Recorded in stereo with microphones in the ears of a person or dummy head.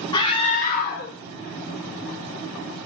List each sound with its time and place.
0.1 s a scream: 25° left (ahead or behind), 0.8 m; by 2.9 s 75° left (ahead or behind), 2.0 m